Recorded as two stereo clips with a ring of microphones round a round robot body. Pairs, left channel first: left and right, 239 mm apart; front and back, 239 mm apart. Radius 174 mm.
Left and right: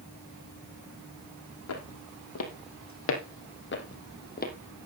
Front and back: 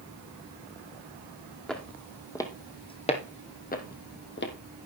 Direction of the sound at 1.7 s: 85° left.